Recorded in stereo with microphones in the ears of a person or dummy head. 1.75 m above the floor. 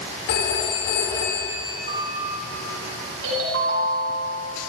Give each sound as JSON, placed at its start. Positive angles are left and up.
{"t": 0.3, "sound": "a phone ringing", "side_deg": 65, "distance_m": 3.5}
{"t": 1.9, "sound": "a piano", "side_deg": -50, "distance_m": 5.0}
{"t": 3.2, "sound": "a ringtone", "side_deg": -75, "distance_m": 5.5}